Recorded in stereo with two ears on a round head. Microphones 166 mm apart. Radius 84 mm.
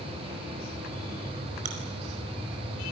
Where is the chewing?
45° right (ahead or behind), 5 m.